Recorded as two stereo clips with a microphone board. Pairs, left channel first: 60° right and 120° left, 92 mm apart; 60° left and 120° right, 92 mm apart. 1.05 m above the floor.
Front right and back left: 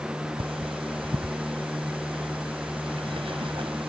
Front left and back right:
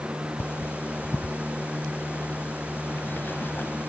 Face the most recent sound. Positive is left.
turn(degrees=125)